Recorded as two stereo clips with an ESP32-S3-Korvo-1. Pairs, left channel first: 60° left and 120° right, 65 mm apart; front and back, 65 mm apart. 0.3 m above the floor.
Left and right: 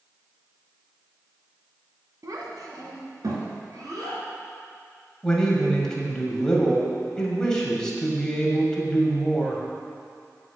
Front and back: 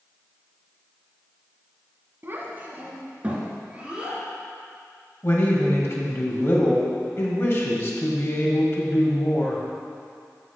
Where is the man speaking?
15° right, 2.0 m.